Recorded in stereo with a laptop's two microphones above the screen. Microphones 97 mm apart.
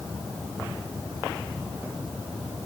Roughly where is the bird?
I don't hear a bird.